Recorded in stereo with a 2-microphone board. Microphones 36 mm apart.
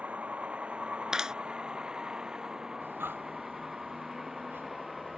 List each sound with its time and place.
0.0 s a vehicle: 40° right (ahead or behind); by 5.2 s 5° right (ahead or behind)
1.1 s a clap: 20° right (ahead or behind)
2.8 s breathing: 85° right